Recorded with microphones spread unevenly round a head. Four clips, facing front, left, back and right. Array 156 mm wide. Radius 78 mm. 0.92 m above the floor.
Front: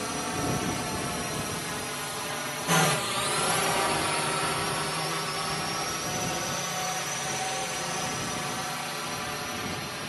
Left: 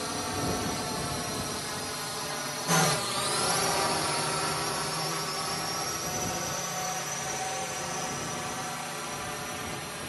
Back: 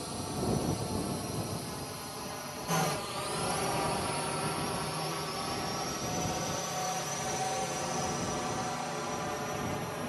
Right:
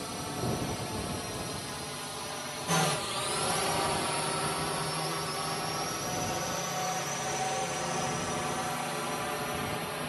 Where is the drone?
30° left; by 10.1 s 125° right.